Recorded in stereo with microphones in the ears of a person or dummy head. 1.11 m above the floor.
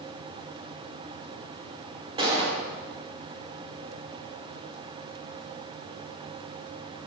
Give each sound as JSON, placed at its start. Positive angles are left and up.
{"t": 2.2, "sound": "a gunshot", "side_deg": -25, "distance_m": 3.5}